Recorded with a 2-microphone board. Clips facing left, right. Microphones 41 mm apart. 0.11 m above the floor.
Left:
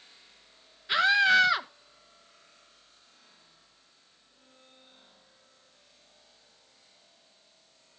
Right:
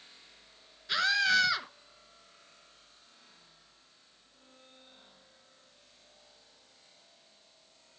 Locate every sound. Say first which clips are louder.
0.9 s a scream: left 5 dB; 20° left (ahead or behind), 1.1 m